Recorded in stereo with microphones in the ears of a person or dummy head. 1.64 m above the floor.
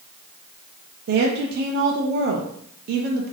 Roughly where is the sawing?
No sawing in this recording.